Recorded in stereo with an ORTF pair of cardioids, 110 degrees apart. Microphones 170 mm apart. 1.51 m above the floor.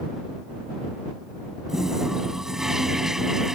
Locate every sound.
1.7 s a toilet flushing: 5° right